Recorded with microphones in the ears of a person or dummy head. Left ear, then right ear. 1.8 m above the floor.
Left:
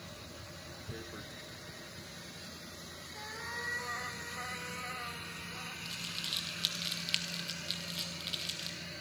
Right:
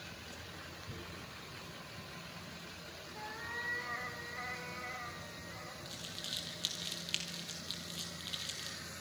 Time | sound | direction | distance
0.9 | tearing paper | 30° left (ahead or behind) | 0.8 m
3.1 | a cat meowing | 10° left (ahead or behind) | 2 m
5.8 | crumpling | 15° left (ahead or behind) | 1.8 m